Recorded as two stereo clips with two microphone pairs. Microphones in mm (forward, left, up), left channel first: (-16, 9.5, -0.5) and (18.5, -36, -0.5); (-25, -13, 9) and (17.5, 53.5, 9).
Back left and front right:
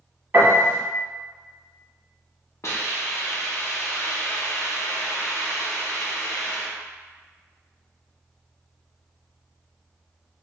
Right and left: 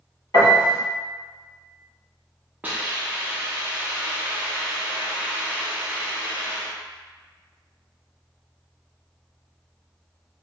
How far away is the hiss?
About 0.6 m.